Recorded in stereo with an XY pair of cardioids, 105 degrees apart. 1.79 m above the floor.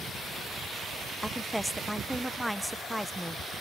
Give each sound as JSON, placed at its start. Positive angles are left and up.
{"t": 1.2, "sound": "a woman speaking", "azimuth_deg": 0}